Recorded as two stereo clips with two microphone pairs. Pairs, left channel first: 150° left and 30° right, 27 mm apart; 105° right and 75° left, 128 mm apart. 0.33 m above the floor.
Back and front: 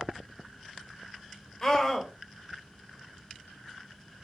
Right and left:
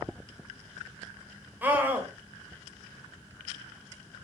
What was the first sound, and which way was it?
A scream, 130° left.